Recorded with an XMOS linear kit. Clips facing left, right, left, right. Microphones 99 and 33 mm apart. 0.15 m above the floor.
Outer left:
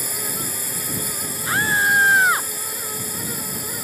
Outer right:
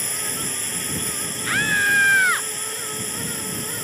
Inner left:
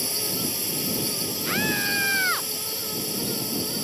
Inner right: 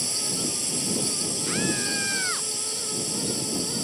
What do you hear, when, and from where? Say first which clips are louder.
0.0 s a drone: outer left 1 dB, inner left 1 dB; 10° left (ahead or behind)
1.4 s a scream: outer left 2 dB, inner left 4 dB; 25° left (ahead or behind)